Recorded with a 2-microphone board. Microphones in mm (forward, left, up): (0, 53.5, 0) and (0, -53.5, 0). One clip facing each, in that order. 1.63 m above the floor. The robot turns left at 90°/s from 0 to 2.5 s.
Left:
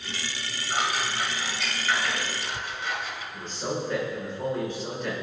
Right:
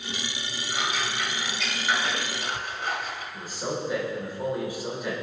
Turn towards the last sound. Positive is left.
turn(degrees=-10)  # may be behind; listen again after turning